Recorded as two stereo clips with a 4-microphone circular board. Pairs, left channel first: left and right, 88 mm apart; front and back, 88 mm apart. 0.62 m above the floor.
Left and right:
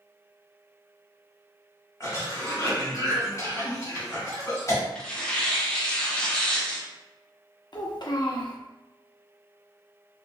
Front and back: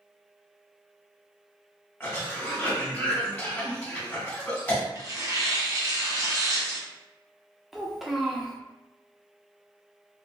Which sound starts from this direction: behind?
Tearing paper, at 5.0 s.